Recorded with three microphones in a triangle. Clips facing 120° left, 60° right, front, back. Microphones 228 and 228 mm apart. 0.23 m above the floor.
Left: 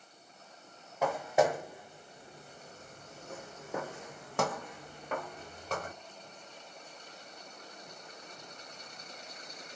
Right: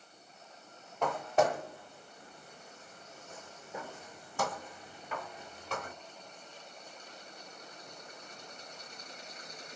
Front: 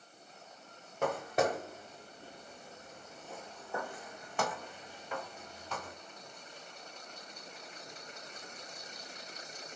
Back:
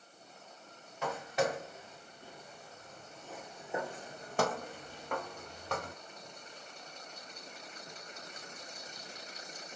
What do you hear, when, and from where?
1.0 s footsteps: 35° left, 1.6 m; by 5.9 s 160° left, 1.6 m